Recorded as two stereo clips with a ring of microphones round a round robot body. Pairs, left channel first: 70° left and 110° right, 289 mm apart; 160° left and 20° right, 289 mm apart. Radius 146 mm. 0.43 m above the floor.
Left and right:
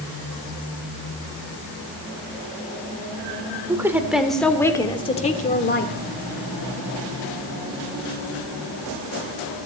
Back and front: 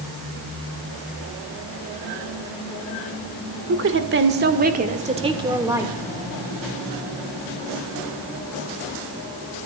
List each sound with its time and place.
3.7 s a woman speaking: 35° right, 1.5 m; by 6.0 s 60° left, 1.4 m